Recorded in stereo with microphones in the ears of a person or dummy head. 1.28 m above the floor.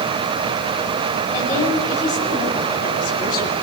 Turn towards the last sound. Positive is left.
turn(degrees=55)  # may be behind; listen again after turning